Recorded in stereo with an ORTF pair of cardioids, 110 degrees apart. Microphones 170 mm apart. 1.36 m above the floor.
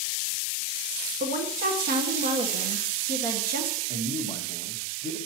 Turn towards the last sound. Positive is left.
turn(degrees=-35)